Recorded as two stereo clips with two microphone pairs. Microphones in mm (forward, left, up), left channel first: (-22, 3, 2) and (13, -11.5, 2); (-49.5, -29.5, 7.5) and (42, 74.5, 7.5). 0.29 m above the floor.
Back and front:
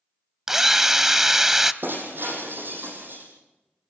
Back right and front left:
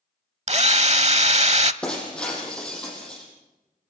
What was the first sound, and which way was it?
A drill, 50° left.